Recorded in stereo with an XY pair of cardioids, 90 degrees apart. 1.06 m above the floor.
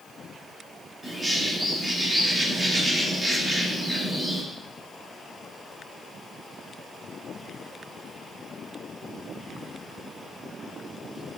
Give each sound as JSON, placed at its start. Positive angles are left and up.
{"t": 1.0, "sound": "a bird", "azimuth_deg": -30, "distance_m": 4.0}